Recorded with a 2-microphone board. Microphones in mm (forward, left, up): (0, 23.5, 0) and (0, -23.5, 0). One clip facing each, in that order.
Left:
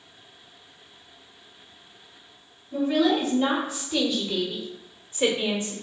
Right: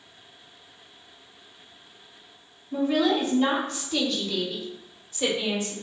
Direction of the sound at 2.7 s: 5° right (ahead or behind).